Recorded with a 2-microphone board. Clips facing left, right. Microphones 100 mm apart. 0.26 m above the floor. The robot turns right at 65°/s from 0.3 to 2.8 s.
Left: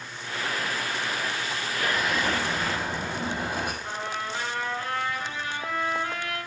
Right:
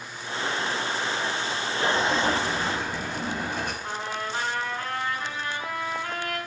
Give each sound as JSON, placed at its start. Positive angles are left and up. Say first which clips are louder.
{"t": 1.9, "sound": "an explosion", "louder": "right 2 dB", "azimuth_deg": -45, "distance_m": 0.8}
{"t": 3.8, "sound": "a trumpet", "louder": "right 1 dB", "side_deg": -45, "distance_m": 1.6}